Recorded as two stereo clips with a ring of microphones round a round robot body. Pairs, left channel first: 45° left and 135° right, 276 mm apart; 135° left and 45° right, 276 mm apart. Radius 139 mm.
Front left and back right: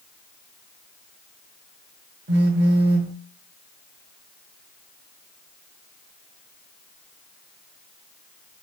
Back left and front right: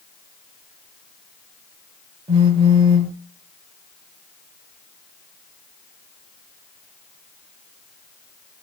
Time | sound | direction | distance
2.3 | a phone buzzing | 105° right | 0.8 m